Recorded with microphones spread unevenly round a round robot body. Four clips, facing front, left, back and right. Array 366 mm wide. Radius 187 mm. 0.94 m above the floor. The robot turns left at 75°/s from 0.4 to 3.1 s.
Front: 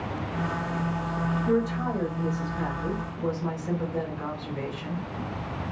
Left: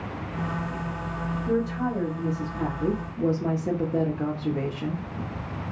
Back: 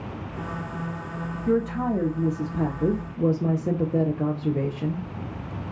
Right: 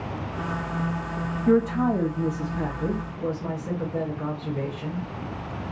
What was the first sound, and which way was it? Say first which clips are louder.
A woman speaking: right 6 dB, back 4 dB; 80° right.